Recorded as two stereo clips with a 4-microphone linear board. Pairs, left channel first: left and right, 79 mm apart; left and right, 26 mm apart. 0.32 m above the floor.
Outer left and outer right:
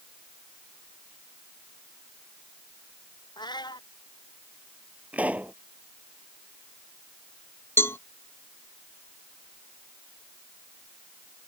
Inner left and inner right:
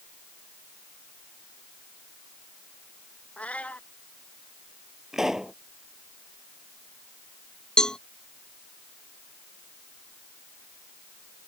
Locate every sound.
3.4 s a cat meowing: 65° left (ahead or behind)
5.1 s a pop: 15° right (ahead or behind)
7.8 s a cowbell: 30° left (ahead or behind)